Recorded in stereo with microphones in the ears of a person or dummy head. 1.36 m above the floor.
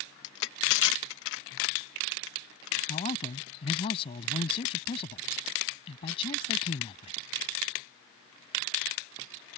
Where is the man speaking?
35° left (ahead or behind).